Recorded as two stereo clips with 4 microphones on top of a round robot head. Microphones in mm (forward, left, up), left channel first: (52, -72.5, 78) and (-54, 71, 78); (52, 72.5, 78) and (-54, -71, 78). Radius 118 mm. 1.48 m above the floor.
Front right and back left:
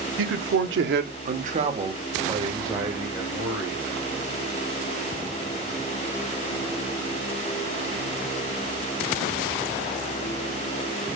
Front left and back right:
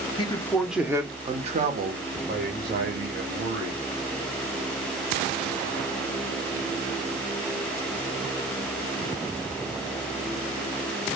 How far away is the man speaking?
About 1.0 m.